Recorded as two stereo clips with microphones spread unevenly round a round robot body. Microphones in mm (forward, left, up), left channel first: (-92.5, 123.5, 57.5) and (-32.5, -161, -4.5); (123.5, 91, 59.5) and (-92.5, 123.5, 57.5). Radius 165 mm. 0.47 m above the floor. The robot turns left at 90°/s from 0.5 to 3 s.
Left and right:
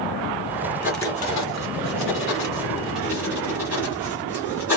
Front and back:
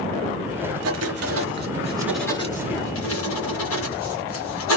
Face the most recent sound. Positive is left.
turn(degrees=5)